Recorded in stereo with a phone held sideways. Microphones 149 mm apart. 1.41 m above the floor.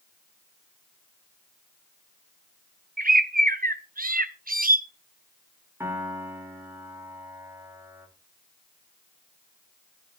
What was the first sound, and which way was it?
A bird, 70° right (ahead or behind).